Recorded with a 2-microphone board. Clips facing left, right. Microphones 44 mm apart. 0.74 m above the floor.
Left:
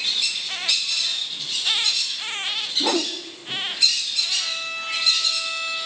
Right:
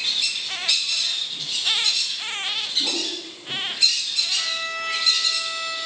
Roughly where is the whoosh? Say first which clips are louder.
Left 5 dB; left.